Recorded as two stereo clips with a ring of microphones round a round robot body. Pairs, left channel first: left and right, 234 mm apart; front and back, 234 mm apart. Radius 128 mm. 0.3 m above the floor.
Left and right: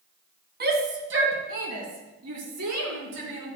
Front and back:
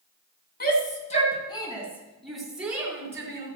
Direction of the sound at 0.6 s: 45° right.